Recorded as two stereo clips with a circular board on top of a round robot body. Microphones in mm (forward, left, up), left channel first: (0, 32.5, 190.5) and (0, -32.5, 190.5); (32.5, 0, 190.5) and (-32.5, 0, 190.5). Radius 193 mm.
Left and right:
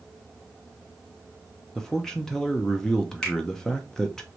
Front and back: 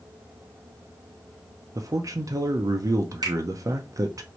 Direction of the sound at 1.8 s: 170° left.